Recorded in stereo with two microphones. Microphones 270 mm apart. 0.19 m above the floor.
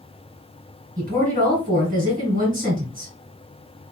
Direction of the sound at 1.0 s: 30° right (ahead or behind).